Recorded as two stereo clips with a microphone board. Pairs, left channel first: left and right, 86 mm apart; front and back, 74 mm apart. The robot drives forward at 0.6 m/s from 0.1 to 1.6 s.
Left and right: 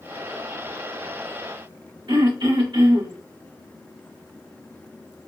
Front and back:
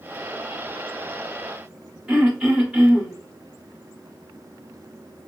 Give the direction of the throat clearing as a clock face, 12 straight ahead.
3 o'clock.